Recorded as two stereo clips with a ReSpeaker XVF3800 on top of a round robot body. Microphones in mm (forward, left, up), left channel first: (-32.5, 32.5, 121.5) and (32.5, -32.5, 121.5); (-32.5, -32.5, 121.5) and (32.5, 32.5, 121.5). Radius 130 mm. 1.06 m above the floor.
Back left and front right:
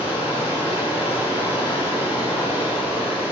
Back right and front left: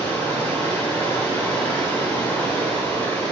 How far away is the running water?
About 2.5 m.